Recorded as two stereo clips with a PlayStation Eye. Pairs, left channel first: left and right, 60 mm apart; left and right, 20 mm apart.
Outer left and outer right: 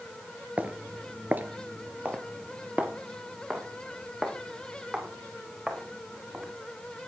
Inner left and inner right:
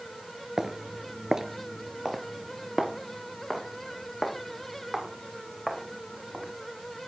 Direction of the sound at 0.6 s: 25° right (ahead or behind).